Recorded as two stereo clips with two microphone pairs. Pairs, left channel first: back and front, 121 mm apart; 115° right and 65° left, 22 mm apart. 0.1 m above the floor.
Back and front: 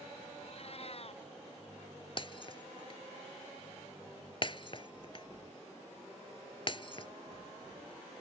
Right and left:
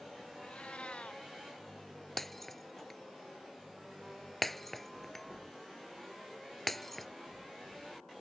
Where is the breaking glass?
160° left.